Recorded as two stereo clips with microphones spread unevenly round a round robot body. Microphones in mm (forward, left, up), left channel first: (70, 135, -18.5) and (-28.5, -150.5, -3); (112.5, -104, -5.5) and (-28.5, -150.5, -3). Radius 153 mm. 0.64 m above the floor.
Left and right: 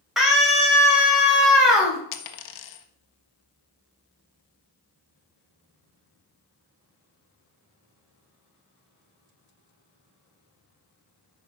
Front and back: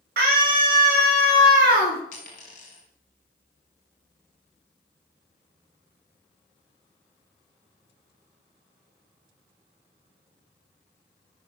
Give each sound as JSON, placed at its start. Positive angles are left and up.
{"t": 0.2, "sound": "a scream", "azimuth_deg": 160, "distance_m": 3.5}
{"t": 2.1, "sound": "a dropped coin", "azimuth_deg": 75, "distance_m": 1.2}